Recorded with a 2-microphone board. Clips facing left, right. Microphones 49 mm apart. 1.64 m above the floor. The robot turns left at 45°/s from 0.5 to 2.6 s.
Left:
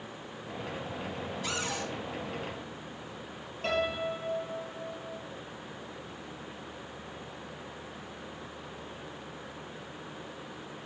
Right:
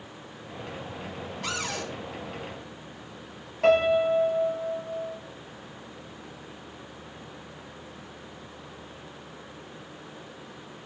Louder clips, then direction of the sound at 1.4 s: Right 3 dB; 65° right (ahead or behind).